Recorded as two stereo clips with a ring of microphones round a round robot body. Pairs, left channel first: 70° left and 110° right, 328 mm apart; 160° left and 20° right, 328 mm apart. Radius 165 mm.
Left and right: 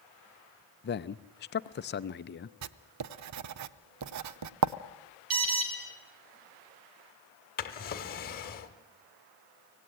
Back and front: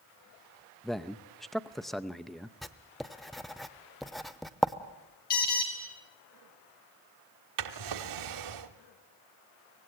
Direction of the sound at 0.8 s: 70° left.